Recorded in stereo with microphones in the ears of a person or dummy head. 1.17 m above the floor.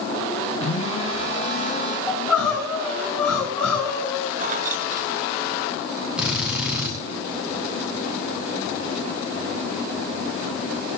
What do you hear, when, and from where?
0.6 s a phone buzzing: 35° left (ahead or behind), 6.5 m
2.1 s crying: 5° left (ahead or behind), 10 m
4.4 s keys jangling: 45° right (ahead or behind), 1.2 m
6.2 s a drill: 5° right (ahead or behind), 6.5 m